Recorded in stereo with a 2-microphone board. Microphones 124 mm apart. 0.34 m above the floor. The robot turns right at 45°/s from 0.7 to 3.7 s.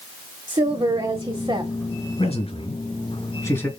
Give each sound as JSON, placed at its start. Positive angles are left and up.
{"t": 0.5, "sound": "a woman speaking", "azimuth_deg": -100, "distance_m": 1.5}
{"t": 2.2, "sound": "a man speaking", "side_deg": 50, "distance_m": 2.0}